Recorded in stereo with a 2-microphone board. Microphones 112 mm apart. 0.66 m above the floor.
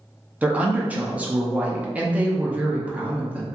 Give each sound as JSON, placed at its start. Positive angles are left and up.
{"t": 0.4, "sound": "a woman speaking", "side_deg": -15, "distance_m": 0.6}